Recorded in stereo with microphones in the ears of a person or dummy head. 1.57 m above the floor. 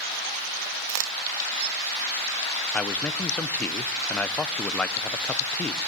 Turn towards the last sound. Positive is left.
turn(degrees=10)  # may be behind; listen again after turning